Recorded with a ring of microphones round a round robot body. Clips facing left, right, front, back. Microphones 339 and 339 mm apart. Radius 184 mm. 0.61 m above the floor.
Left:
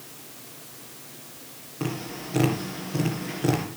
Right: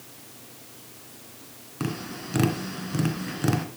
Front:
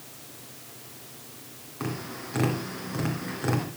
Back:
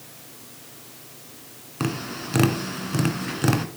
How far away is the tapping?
About 2 m.